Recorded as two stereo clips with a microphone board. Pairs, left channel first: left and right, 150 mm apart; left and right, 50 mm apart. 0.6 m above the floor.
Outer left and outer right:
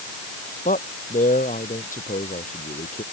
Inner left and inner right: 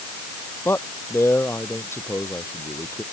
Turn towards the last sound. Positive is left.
turn(degrees=60)  # may be behind; listen again after turning